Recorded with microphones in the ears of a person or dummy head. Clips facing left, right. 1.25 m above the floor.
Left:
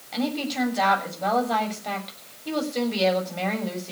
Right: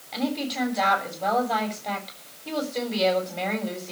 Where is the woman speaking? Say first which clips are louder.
Left 1 dB; centre (ahead or behind), 7 m.